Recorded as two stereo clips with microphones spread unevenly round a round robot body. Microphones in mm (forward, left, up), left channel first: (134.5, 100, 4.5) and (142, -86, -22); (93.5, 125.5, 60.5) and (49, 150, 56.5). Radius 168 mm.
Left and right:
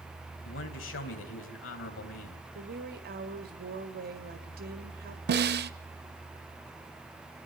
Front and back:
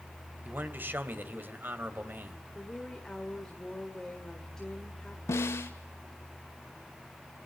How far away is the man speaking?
About 3.5 m.